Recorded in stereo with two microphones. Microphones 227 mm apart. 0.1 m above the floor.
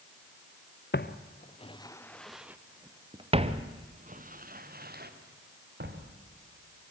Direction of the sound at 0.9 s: 50° left (ahead or behind).